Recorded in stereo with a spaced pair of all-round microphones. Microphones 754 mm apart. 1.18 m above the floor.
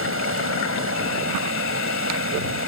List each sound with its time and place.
0.0 s running water: 15° right (ahead or behind)